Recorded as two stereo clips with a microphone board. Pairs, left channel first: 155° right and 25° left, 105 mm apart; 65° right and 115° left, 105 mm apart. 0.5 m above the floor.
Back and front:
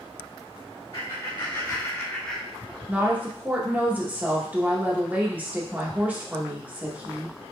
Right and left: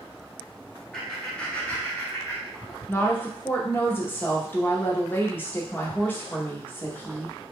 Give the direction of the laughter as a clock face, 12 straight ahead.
5 o'clock.